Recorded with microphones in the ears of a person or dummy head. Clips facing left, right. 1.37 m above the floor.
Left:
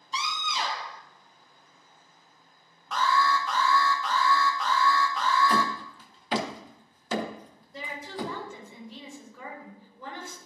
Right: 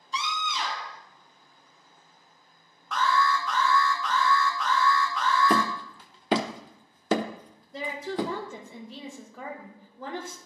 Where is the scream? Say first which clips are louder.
Right 1 dB; 30° left (ahead or behind), 0.7 m.